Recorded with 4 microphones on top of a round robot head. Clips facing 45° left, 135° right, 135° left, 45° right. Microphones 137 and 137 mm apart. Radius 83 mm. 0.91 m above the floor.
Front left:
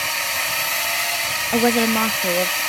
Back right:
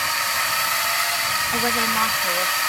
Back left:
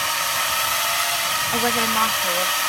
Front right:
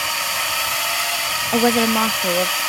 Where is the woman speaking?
5° left.